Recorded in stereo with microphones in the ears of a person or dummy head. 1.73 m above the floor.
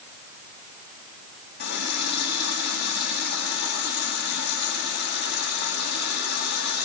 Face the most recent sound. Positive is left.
turn(degrees=60)  # may be behind; listen again after turning